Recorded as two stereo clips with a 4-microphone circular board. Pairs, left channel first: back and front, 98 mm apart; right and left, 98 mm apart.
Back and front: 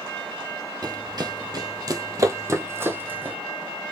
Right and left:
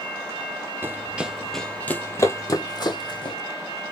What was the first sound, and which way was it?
Running footsteps, 30° left.